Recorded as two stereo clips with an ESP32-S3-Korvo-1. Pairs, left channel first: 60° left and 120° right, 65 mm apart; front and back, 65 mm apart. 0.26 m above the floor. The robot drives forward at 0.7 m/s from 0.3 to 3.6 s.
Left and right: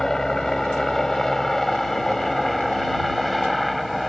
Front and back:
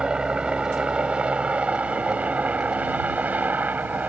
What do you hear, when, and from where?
0.0 s a helicopter: 130° left; by 4.1 s 150° left